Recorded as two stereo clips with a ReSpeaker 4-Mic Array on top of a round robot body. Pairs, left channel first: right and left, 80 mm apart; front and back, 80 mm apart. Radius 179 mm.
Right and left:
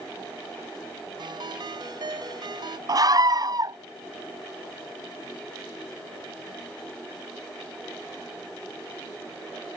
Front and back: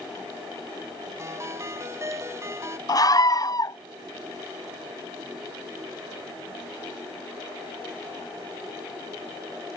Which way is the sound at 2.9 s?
45° left.